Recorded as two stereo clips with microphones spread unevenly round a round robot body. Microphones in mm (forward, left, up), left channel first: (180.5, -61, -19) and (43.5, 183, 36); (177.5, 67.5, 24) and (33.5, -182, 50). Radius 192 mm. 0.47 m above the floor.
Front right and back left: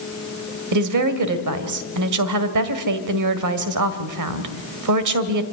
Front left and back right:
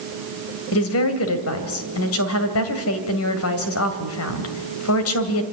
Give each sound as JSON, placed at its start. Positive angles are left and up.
{"t": 0.7, "sound": "a woman speaking", "azimuth_deg": 105, "distance_m": 2.0}